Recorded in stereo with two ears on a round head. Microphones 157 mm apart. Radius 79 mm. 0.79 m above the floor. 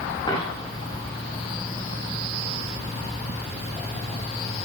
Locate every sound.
0.3 s a dropped coin: 30° left (ahead or behind), 5.5 m